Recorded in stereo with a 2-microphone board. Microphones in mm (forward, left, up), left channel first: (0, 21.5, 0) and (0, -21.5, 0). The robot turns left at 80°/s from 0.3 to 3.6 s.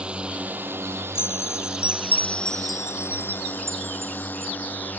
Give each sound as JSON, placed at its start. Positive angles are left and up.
{"t": 0.0, "sound": "a drone", "side_deg": -25}
{"t": 1.1, "sound": "a chime", "side_deg": 60}